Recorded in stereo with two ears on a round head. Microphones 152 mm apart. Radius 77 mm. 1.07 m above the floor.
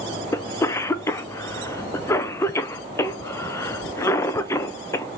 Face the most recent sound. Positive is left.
turn(degrees=15)  # may be behind; listen again after turning